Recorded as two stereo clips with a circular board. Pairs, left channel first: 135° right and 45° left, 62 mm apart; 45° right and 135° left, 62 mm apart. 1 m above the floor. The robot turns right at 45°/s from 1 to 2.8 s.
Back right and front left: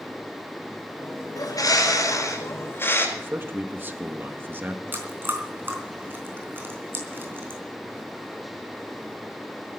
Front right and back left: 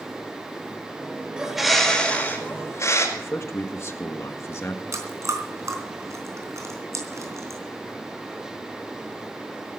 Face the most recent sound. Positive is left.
turn(degrees=100)